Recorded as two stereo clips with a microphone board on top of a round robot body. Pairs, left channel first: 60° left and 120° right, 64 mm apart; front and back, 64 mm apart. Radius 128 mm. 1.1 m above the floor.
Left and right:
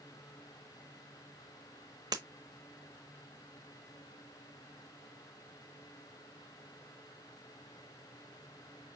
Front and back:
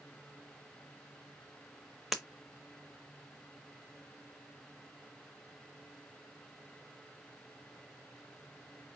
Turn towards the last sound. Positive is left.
turn(degrees=-95)